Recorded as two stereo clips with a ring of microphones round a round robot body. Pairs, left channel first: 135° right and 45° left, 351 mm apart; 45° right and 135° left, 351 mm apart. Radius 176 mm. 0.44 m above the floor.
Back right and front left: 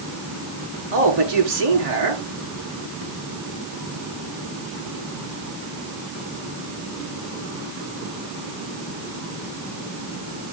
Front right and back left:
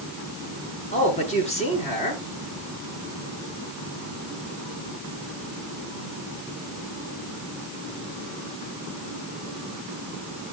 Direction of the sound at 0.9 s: 30° left.